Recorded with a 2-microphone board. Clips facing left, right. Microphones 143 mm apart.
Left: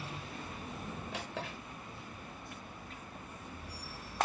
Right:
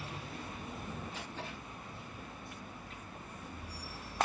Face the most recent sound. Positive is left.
turn(degrees=80)